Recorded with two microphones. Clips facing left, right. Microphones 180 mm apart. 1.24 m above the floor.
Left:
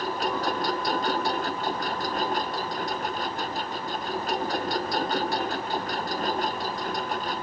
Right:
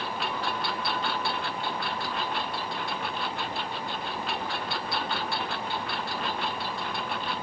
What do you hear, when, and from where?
0.0 s a lawn mower: 40° left (ahead or behind)